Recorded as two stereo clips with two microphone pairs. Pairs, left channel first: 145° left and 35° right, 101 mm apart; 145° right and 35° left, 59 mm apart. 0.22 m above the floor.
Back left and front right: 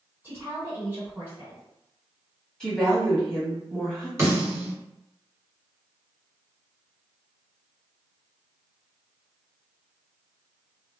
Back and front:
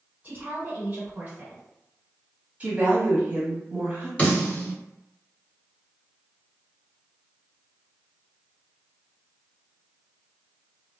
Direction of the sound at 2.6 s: 65° left.